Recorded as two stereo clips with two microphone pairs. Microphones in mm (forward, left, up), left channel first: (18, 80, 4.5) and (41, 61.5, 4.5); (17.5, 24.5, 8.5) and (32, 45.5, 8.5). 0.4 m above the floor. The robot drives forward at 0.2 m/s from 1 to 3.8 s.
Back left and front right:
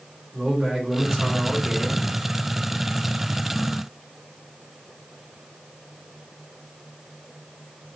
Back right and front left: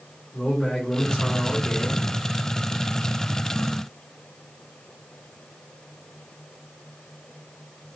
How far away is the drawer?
No drawer in this recording.